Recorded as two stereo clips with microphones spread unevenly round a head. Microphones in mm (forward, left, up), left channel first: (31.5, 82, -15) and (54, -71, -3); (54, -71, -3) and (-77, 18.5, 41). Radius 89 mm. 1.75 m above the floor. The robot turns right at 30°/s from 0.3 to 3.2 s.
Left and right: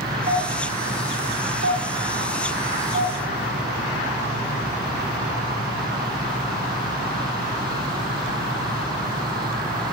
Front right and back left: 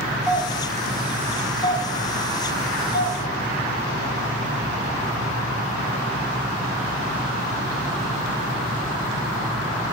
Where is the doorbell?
135° right, 1.9 m; by 3.2 s 45° right, 1.9 m.